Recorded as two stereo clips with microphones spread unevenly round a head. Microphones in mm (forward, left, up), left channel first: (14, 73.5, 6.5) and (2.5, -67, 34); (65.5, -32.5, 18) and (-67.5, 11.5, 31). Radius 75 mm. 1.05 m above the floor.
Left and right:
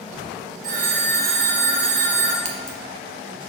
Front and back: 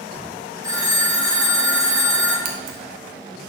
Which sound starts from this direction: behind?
Scissors, at 2.5 s.